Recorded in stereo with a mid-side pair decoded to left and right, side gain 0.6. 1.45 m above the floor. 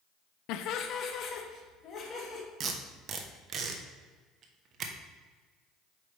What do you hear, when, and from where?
0.5 s laughter: 70° left, 0.6 m; by 2.4 s 40° left, 3.5 m
2.6 s tape being pulled: 45° right, 1.1 m